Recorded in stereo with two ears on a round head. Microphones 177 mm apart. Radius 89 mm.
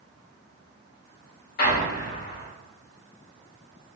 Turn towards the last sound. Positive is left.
turn(degrees=45)  # may be behind; listen again after turning